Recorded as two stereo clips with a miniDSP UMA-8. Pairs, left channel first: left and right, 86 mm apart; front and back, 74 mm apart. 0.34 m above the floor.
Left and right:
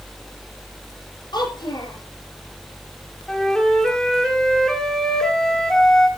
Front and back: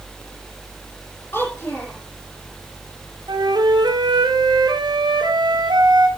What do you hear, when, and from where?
1.3 s a child speaking: 60° left, 9 m
3.3 s a flute: 170° left, 2.5 m